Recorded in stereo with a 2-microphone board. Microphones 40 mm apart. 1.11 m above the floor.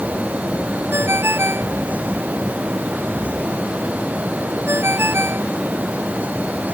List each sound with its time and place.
0.9 s a ringtone: 80° right